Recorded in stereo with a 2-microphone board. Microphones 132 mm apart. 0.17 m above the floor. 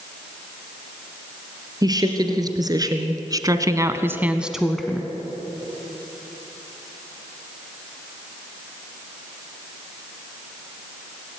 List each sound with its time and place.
1.8 s a woman speaking: 30° right (ahead or behind), 3 m; by 5.1 s 10° left (ahead or behind), 1.5 m